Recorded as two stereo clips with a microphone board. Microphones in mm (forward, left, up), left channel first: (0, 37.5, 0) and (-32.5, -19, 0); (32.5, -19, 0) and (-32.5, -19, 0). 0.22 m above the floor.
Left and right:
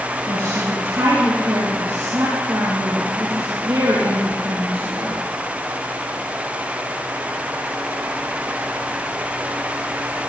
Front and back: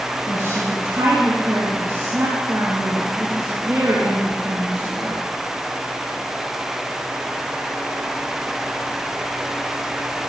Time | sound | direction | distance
0.3 | a woman speaking | 135° right | 5.5 m